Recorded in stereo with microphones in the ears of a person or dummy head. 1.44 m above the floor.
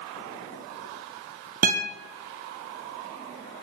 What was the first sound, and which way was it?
A guitar, 45° right (ahead or behind).